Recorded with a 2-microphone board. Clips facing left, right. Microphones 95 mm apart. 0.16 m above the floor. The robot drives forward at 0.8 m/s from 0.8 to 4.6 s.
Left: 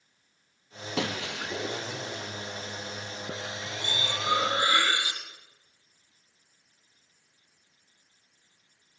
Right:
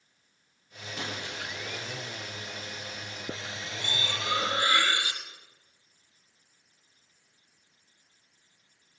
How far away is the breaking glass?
About 2.5 m.